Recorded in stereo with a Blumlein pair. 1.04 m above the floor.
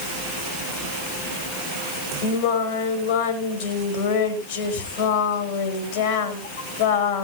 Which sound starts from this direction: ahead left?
Singing, at 2.2 s.